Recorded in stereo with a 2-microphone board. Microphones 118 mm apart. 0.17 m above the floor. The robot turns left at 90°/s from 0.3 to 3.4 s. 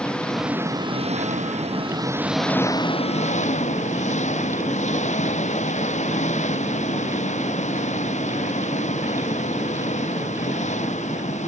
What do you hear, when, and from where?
0.0 s an engine running: 10° left; by 11.5 s 90° left